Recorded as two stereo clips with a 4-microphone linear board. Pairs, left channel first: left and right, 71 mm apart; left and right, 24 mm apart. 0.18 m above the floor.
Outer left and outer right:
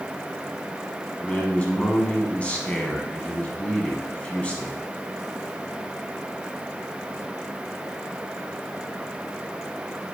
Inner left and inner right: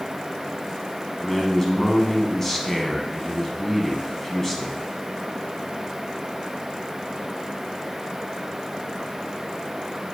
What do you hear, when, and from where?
1.2 s a man speaking: 20° left (ahead or behind), 1.5 m